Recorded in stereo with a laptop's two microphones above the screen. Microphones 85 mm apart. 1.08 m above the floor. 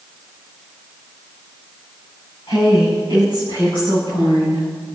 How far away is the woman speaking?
About 6.5 m.